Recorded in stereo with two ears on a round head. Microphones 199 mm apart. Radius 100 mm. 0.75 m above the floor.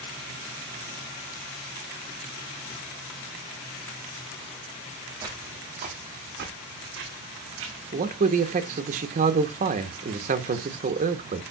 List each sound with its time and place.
5.2 s footsteps: 20° right (ahead or behind), 1.4 m; by 7.8 s 65° right (ahead or behind), 2.5 m
7.9 s a man speaking: 35° right (ahead or behind), 0.9 m